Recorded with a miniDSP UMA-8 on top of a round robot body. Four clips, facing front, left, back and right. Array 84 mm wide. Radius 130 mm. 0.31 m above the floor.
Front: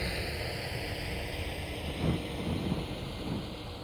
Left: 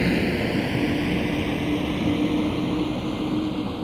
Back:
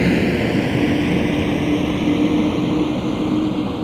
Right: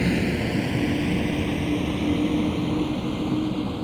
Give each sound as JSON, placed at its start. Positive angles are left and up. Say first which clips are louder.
{"t": 0.0, "sound": "a vehicle", "louder": "left 1 dB, back 21 dB", "azimuth_deg": 170}